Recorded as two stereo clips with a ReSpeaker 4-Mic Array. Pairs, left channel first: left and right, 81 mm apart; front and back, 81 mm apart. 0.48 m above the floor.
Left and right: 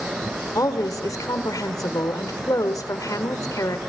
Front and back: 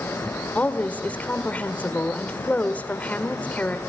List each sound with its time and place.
0.6 s a woman speaking: 65° left, 1.5 m